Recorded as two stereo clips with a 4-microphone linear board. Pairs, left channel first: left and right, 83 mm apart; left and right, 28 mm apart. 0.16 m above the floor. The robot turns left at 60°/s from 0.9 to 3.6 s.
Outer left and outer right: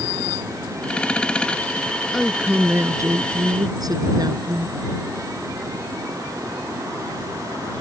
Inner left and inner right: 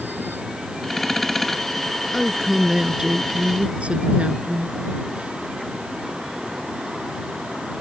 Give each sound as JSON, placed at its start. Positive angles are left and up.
{"t": 2.1, "sound": "a woman speaking", "azimuth_deg": 0}